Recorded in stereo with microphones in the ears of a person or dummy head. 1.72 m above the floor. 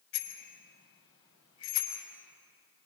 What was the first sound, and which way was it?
A bicycle bell, 85° left.